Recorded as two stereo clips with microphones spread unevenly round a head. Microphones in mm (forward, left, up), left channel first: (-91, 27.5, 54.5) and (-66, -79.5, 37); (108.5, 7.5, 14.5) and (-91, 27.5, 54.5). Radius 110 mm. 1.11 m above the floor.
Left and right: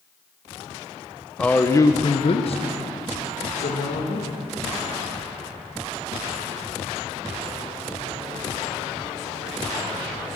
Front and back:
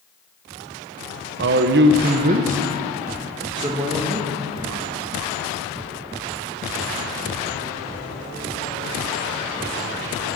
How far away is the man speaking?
About 1.0 m.